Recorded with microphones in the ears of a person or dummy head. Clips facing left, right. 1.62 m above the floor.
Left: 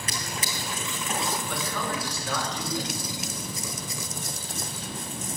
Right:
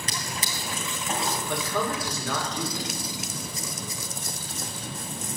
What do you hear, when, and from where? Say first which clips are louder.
0.1 s a drawer: left 2 dB; 30° right (ahead or behind), 3 m
1.5 s a man speaking: right 3 dB; 65° right (ahead or behind), 6.5 m